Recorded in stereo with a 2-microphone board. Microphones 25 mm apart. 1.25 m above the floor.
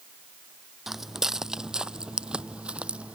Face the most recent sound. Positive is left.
turn(degrees=-60)  # may be behind; listen again after turning